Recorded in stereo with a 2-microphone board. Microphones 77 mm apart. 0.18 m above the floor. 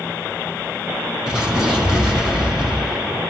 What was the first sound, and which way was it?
An explosion, 5° right (ahead or behind).